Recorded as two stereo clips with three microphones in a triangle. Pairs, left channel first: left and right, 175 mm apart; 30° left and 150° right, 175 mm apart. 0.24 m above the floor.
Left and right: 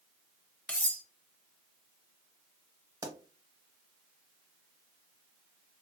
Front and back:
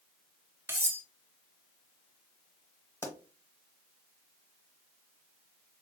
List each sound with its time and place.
0.7 s cutlery clinking: 160° left, 0.5 m
3.0 s a pop: 35° right, 0.7 m